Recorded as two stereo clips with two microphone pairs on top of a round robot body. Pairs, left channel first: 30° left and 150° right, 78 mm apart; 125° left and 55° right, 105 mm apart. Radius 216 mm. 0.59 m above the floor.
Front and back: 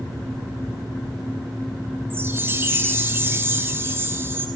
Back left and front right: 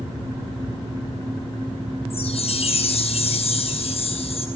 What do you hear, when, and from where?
2.1 s a chime: 150° left, 3 m